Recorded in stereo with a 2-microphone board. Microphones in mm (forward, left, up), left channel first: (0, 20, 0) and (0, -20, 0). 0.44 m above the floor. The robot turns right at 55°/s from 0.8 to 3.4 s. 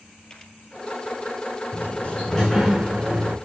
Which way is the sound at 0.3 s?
20° left (ahead or behind).